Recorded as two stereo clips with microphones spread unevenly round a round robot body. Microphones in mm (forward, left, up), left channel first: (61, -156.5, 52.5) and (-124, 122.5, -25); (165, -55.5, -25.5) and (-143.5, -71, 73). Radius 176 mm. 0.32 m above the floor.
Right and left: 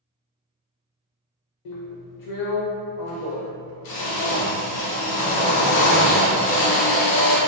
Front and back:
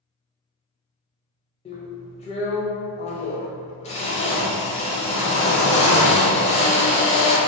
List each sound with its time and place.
1.6 s a drill: 35° right, 0.6 m